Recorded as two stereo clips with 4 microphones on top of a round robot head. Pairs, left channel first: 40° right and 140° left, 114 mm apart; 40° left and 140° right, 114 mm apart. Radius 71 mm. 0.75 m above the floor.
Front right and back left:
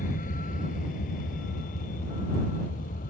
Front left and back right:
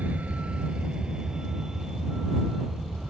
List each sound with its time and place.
0.0 s a vehicle: 60° right; by 3.1 s 50° right